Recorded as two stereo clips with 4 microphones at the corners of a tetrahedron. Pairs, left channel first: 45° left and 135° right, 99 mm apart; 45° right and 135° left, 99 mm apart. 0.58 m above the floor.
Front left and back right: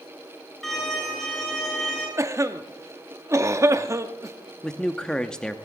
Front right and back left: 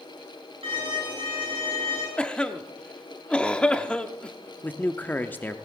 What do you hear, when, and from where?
0.6 s a violin: 130° left, 8 m
2.2 s a cough: 115° right, 0.8 m
4.6 s a man speaking: 25° right, 0.7 m